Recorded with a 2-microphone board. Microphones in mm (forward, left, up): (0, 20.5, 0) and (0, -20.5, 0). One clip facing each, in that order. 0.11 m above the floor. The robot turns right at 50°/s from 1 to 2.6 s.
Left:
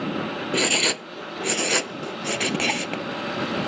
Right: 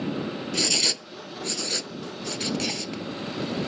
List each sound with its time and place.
0.5 s writing: 35° left (ahead or behind); by 3.0 s 50° left (ahead or behind)